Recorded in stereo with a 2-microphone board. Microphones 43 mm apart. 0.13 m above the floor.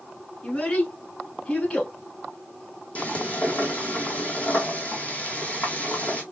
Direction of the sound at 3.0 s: 35° left (ahead or behind).